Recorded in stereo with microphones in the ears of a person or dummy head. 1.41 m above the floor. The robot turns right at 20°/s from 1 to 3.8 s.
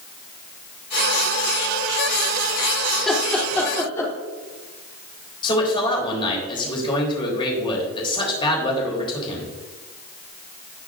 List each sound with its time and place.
2.9 s laughter: centre (ahead or behind), 3 m; by 4.1 s 15° left (ahead or behind), 3 m
5.4 s a man speaking: 30° left (ahead or behind), 3.5 m